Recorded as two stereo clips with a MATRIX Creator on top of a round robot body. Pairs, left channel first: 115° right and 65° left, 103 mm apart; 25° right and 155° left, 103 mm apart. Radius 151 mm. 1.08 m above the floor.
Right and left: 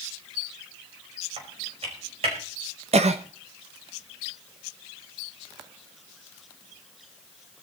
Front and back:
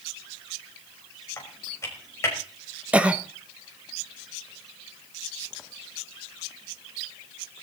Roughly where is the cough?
Left.